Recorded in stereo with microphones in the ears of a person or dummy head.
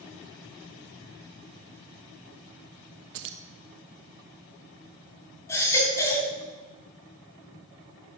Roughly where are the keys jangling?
Right.